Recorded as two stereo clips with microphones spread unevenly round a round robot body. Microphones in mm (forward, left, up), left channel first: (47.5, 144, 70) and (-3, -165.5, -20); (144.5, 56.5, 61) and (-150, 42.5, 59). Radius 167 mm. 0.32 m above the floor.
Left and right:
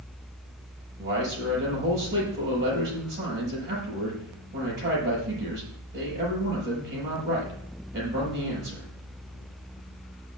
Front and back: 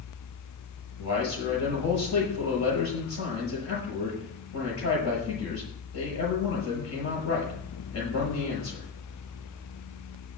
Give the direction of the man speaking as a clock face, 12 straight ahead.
1 o'clock.